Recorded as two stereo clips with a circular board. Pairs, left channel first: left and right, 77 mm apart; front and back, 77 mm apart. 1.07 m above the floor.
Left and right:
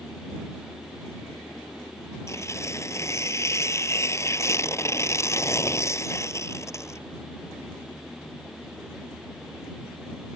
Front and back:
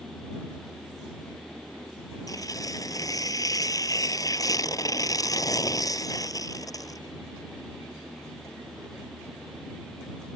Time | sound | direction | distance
2.3 | tearing paper | 40° left | ?